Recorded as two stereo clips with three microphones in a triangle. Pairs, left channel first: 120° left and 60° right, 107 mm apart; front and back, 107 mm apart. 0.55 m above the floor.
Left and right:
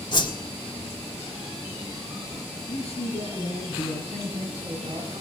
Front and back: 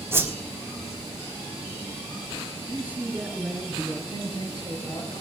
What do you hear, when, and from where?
0.1 s a whoosh: 120° left, 1.6 m
2.7 s a man speaking: 100° left, 6.5 m
4.1 s a man speaking: 40° right, 4.5 m